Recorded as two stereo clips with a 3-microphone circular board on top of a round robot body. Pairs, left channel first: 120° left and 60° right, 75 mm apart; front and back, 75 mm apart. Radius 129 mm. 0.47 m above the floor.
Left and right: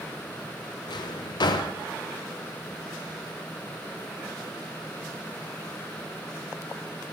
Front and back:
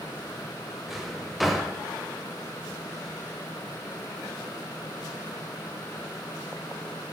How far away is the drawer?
About 0.5 m.